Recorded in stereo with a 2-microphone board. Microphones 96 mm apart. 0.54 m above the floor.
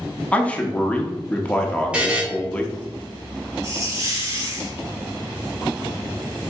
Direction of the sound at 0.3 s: 15° left (ahead or behind).